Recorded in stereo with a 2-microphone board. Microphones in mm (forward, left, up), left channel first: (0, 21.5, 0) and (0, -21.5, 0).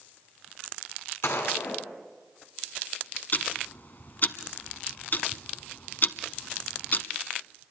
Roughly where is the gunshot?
Left.